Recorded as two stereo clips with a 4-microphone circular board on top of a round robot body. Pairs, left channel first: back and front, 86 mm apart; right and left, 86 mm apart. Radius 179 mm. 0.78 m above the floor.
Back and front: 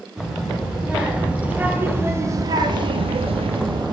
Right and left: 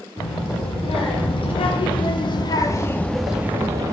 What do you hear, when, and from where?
0.2 s a child speaking: 85° right, 2.5 m; by 3.9 s 35° left, 0.9 m